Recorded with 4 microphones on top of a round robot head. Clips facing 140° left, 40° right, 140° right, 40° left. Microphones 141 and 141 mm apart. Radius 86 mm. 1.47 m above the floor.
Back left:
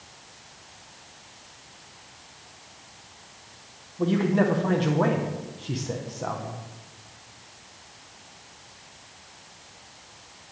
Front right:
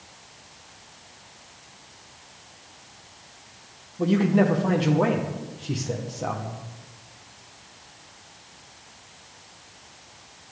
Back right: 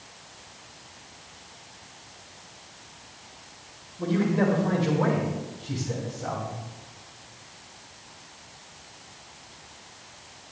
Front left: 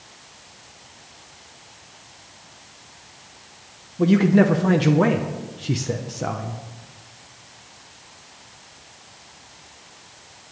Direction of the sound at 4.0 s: 40° left.